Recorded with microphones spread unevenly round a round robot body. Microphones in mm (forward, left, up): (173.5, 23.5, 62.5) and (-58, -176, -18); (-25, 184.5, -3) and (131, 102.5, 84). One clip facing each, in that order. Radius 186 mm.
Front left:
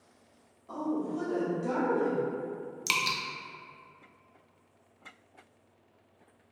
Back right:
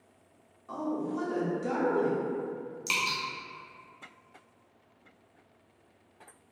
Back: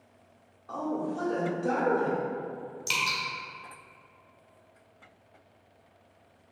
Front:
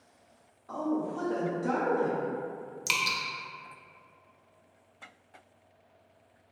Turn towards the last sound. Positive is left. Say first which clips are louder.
# even, back 1 dB
turn(degrees=-25)